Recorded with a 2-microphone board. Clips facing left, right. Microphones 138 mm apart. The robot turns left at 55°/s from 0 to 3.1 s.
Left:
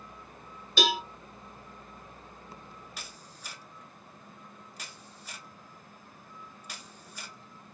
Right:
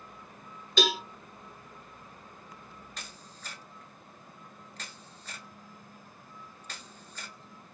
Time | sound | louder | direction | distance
0.8 | a cowbell | even | 5° left (ahead or behind) | 1.1 m
3.0 | a camera shutter | even | 10° left (ahead or behind) | 0.5 m